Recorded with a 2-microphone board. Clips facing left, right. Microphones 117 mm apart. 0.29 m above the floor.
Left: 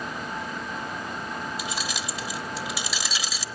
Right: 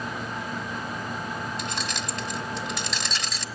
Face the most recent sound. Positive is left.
turn(degrees=5)  # may be behind; listen again after turning